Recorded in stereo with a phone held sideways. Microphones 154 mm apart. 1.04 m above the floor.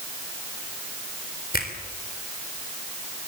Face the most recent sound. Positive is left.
turn(degrees=70)  # may be behind; listen again after turning